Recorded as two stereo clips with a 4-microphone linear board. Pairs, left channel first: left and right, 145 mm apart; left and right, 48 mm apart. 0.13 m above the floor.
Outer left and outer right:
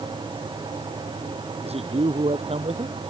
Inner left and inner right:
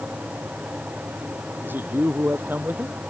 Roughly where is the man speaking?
Right.